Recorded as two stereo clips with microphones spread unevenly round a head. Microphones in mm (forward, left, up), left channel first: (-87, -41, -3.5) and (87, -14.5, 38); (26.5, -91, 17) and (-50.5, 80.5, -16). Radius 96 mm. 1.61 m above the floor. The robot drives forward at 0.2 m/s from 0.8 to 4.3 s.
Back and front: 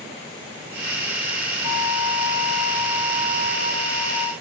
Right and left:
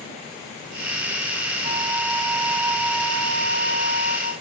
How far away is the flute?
About 2.5 m.